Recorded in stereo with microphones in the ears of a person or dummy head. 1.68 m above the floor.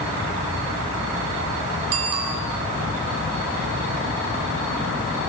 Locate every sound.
1.9 s a bicycle bell: 80° right, 5.5 m